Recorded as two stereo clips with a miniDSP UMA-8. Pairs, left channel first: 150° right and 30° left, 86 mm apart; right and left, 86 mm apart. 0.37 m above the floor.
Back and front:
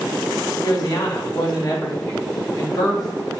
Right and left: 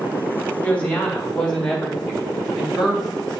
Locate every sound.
0.6 s a woman speaking: 160° right, 1.8 m; by 3.4 s 170° left, 3 m